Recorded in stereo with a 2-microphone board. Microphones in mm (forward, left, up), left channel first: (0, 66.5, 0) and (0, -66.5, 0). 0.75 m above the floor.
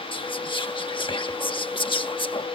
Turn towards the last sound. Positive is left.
turn(degrees=40)  # may be behind; listen again after turning